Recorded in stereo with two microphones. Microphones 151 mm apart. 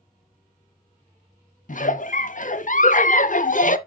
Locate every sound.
1.7 s a giggle: 60° left (ahead or behind), 0.5 m